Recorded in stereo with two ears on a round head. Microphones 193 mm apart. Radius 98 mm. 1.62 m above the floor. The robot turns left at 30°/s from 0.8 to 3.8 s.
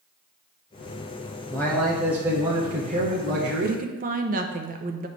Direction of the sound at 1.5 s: 10° left.